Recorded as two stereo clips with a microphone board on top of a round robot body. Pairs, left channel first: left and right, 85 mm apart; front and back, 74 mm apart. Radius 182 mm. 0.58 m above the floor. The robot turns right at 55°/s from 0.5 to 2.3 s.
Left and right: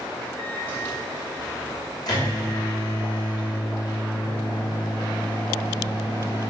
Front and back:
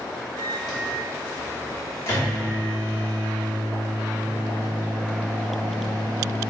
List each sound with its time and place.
0.4 s a microwave: 35° right, 1.2 m; by 6.5 s 65° left, 1.2 m